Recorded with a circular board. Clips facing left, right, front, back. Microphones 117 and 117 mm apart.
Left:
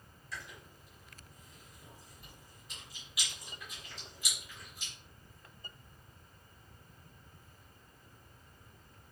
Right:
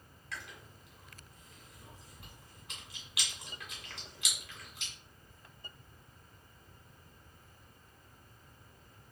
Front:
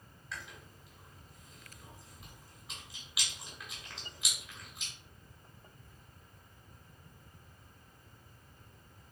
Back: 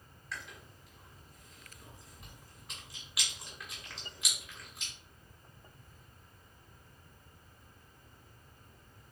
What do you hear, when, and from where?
0.3 s chewing: 90° right, 1.9 m